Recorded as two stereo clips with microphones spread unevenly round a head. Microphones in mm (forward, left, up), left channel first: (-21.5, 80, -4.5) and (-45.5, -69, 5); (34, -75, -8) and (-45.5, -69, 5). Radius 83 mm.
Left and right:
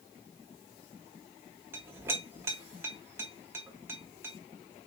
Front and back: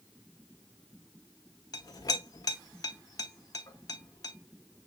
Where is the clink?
30° right, 1.0 m.